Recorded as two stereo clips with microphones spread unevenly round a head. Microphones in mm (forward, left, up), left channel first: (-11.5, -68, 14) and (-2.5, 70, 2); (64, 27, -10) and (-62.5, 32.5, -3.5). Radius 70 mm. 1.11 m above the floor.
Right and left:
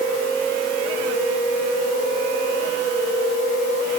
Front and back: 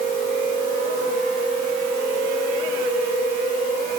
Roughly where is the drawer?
No drawer in this recording.